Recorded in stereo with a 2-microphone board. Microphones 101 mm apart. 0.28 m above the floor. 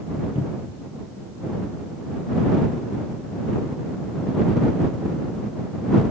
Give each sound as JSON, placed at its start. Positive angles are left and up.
{"t": 0.3, "sound": "a cupboard door", "side_deg": 60}